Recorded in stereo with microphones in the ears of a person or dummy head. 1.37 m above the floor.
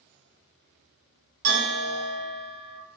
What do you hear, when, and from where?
1.4 s a bell: 75° right (ahead or behind), 1.3 m